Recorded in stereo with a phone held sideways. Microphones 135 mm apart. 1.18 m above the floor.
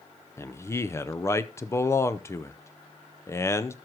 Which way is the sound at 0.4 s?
20° left (ahead or behind).